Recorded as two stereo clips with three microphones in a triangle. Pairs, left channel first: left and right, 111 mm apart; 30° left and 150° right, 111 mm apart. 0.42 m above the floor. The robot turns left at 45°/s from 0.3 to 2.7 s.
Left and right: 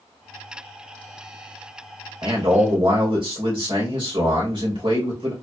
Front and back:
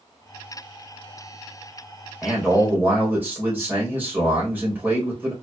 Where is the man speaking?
60° right, 2 m; by 5.3 s 80° right, 2 m.